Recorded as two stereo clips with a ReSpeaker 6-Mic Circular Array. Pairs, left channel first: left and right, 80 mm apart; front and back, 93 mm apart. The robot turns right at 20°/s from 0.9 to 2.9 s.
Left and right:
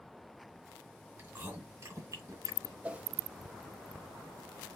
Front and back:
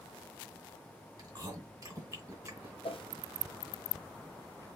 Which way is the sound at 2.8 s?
15° right.